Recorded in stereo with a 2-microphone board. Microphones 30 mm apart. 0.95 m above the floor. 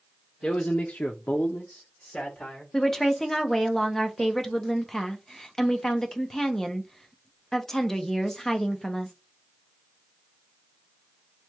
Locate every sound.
0.4 s a man speaking: 25° left (ahead or behind), 0.8 m
2.7 s a woman speaking: 15° left (ahead or behind), 0.6 m